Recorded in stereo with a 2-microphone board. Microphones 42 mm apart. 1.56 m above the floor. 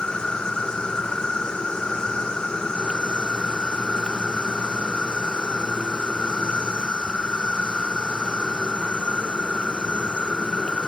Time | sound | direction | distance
0.0 | an insect | 20° left (ahead or behind) | ?